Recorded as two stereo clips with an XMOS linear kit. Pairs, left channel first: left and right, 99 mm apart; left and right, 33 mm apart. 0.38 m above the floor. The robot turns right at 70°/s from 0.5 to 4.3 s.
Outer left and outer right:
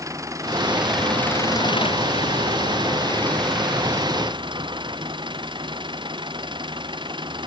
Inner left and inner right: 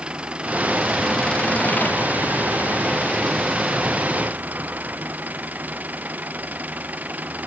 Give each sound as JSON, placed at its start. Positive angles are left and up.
{"t": 0.0, "sound": "an engine running", "azimuth_deg": -30}